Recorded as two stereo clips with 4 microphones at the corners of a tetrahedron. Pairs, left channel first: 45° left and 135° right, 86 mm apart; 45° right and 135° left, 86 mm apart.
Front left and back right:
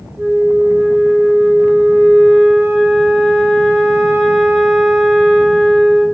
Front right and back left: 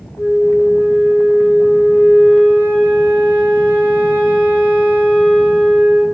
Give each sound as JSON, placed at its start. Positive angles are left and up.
{"t": 0.2, "sound": "a flute", "azimuth_deg": -100, "distance_m": 0.8}